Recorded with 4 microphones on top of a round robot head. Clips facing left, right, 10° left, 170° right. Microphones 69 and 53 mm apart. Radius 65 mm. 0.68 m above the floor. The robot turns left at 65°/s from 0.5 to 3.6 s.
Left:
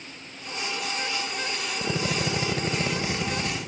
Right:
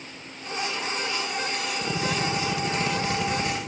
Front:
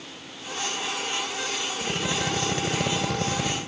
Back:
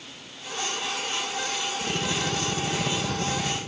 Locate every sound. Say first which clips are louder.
1.8 s a drill: even, front 2 dB; 95° left, 4.5 m; by 3.6 s 25° right, 4.5 m